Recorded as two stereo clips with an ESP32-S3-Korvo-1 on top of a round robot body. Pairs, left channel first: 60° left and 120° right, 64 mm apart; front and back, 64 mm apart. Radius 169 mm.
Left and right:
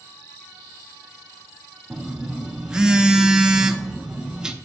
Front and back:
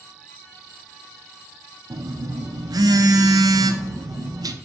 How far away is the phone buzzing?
About 0.6 m.